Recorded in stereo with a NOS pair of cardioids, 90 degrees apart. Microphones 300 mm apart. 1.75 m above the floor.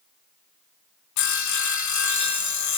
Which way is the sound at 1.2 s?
65° left.